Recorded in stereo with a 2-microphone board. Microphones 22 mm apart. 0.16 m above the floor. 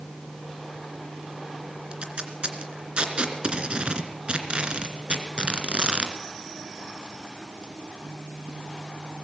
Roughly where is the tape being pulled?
Right.